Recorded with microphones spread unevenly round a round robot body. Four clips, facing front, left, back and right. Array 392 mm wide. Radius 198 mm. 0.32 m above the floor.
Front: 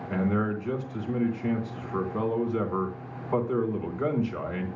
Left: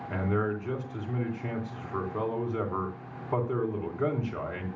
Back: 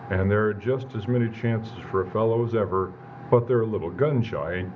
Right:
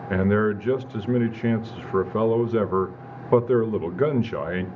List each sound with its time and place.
0.1 s a man speaking: 145° right, 1.2 m